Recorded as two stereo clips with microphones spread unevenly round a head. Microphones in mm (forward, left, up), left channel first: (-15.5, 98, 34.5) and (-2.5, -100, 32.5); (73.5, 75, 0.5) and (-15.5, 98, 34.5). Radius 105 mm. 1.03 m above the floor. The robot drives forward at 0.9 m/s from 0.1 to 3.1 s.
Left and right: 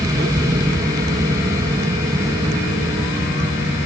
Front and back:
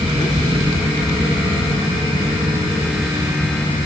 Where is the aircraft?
150° right; by 3.9 s 155° right.